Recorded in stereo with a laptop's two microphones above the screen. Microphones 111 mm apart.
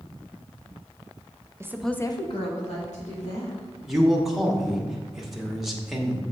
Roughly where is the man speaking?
Centre.